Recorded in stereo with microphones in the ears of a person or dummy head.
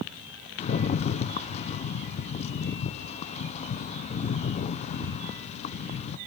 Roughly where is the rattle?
Left.